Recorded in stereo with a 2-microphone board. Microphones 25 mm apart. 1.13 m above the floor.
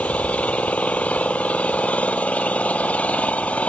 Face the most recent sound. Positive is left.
turn(degrees=65)  # may be behind; listen again after turning